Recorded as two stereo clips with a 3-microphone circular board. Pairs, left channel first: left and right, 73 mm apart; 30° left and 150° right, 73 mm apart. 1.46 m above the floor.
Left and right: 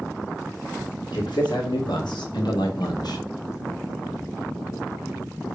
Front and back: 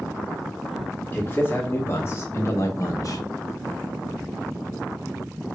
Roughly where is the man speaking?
Left.